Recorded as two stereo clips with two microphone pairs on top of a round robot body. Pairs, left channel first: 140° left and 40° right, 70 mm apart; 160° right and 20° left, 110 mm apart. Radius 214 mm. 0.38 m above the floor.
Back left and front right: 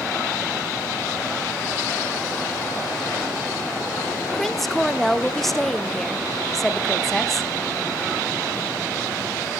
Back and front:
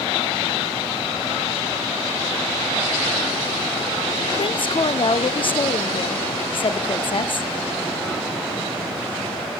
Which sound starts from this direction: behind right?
A woman speaking, at 4.3 s.